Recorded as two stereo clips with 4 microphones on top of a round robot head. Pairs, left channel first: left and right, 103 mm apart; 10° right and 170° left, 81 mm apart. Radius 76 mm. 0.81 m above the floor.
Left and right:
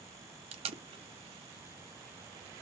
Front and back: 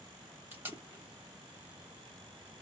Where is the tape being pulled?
115° right, 0.6 m.